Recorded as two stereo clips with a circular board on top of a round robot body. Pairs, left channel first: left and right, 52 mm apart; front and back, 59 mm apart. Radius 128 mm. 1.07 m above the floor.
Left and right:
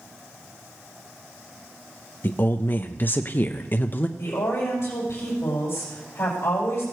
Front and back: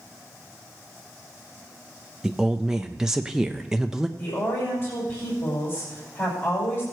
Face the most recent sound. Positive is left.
turn(degrees=55)